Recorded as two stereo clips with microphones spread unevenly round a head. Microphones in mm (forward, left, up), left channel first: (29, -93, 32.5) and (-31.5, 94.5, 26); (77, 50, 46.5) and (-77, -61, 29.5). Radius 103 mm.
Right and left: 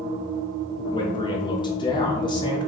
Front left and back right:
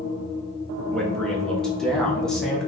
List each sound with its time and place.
0.9 s a man speaking: 60° right, 0.6 m